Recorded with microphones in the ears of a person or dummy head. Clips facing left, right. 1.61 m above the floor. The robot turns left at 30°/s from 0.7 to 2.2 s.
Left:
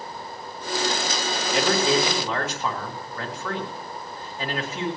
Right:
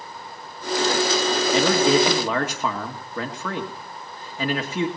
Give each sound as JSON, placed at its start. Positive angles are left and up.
{"t": 1.5, "sound": "a man speaking", "side_deg": -75, "distance_m": 2.5}